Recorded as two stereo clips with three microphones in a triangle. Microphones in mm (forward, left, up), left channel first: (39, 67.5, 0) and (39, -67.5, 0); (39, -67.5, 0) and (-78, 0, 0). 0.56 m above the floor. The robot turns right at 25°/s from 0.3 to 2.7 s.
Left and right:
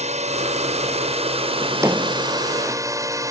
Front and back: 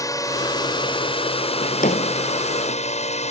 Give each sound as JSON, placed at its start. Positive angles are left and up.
{"t": 0.0, "sound": "a drone", "azimuth_deg": -90}
{"t": 1.6, "sound": "a drawer", "azimuth_deg": -25}